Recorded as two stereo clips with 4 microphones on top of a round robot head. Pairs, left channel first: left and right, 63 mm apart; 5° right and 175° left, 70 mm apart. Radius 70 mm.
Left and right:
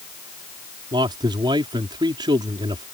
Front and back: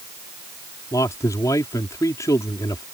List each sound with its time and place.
0.9 s a man speaking: 65° right